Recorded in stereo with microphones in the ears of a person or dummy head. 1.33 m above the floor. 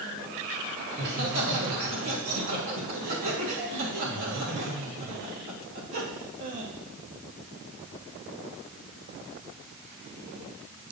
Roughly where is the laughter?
Right.